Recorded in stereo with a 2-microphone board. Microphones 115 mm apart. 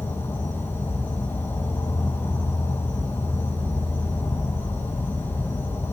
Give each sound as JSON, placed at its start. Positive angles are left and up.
{"t": 0.0, "sound": "an insect", "side_deg": 20, "distance_m": 1.1}